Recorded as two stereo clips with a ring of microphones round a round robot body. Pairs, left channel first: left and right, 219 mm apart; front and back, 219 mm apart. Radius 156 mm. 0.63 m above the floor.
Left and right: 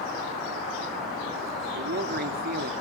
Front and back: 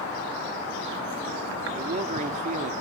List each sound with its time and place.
1.7 s a man speaking: 125° right, 1.5 m